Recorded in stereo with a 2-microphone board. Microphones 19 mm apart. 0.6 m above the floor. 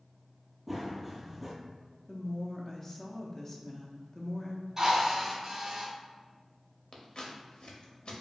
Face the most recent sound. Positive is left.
turn(degrees=55)  # may be behind; listen again after turning